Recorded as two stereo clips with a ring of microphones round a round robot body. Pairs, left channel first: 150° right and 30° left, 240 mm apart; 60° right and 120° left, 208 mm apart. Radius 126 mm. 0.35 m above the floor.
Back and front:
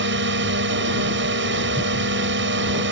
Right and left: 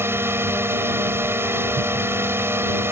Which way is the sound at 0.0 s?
45° left.